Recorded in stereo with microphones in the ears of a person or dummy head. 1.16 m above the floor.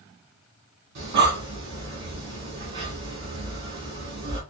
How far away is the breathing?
About 1.9 m.